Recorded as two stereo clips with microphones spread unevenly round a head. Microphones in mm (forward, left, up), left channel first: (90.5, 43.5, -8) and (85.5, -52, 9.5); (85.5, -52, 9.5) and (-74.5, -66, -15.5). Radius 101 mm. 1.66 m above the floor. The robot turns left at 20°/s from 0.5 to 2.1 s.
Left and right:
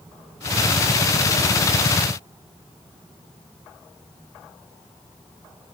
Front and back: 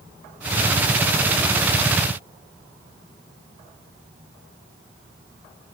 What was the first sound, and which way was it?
Only background noise.